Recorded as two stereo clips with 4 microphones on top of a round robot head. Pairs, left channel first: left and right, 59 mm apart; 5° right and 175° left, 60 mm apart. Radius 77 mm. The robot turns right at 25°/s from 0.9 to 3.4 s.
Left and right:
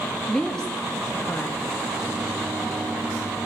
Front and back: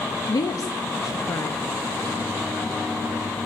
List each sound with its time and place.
0.3 s a woman speaking: 10° left, 2 m; by 1.6 s 25° left, 2 m